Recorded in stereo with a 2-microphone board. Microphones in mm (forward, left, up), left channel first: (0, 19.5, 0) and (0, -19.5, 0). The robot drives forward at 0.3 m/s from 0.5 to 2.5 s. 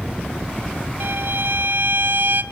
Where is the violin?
65° right (ahead or behind), 0.7 m; by 2.4 s 60° right (ahead or behind), 0.7 m.